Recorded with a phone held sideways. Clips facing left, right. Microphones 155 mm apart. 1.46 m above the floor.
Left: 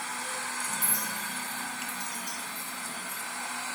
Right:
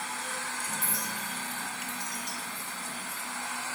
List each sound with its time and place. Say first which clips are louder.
0.8 s a clink: even; 65° left (ahead or behind), 2.5 m